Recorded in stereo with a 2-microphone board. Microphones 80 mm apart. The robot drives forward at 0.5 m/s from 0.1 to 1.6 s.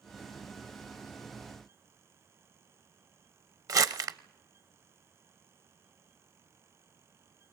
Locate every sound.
3.7 s crumpling: 45° right (ahead or behind), 0.7 m